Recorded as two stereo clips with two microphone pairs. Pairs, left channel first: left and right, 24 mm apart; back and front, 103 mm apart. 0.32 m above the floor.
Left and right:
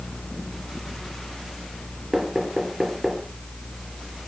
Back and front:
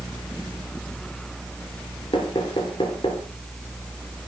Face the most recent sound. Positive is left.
turn(degrees=-155)